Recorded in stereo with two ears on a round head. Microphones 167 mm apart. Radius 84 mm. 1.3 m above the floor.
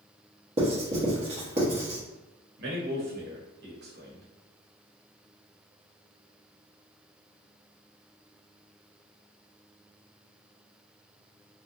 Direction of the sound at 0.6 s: 35° right (ahead or behind).